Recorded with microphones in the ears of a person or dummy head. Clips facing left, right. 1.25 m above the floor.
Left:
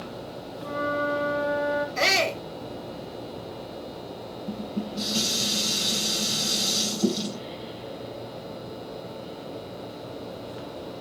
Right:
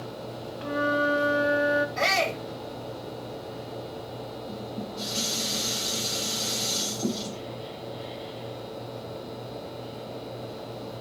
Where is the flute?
20° right (ahead or behind), 1.3 m.